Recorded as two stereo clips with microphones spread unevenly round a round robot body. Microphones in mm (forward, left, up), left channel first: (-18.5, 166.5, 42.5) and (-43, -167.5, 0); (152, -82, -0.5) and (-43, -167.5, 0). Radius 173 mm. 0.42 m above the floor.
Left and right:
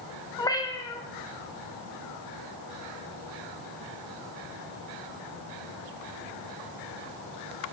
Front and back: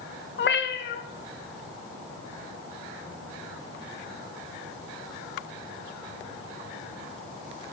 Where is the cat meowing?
5° left, 0.6 m.